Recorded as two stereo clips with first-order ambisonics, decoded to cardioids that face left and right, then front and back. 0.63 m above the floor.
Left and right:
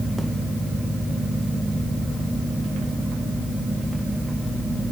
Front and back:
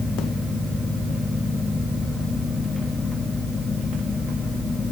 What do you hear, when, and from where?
Only background noise.